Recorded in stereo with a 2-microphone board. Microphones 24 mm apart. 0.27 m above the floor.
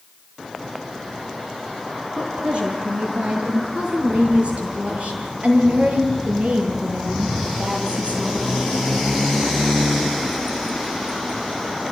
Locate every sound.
2.2 s a woman speaking: 40° right (ahead or behind), 4.5 m; by 8.8 s 75° right (ahead or behind), 7 m